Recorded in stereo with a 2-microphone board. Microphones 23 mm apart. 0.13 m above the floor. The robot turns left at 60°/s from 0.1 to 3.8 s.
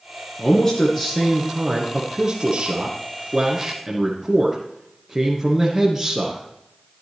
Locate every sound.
0.4 s a man speaking: 65° left, 1.8 m; by 6.4 s 140° right, 1.8 m